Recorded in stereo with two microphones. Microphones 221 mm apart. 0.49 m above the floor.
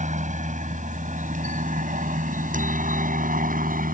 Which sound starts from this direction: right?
A helicopter, at 0.0 s.